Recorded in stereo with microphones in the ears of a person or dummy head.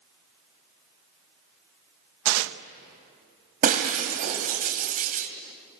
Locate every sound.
2.2 s tearing paper: 80° right, 1.0 m
3.6 s breaking glass: 45° right (ahead or behind), 2.5 m